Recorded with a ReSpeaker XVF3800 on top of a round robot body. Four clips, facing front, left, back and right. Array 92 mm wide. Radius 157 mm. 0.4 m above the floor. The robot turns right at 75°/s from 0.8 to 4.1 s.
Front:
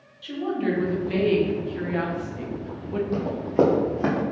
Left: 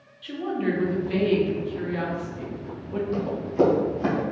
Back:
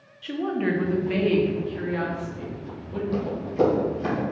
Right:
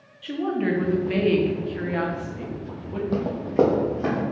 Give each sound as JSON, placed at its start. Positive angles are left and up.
{"t": 0.2, "sound": "a woman speaking", "azimuth_deg": -150, "distance_m": 0.9}
{"t": 3.1, "sound": "running footsteps", "azimuth_deg": -75, "distance_m": 0.9}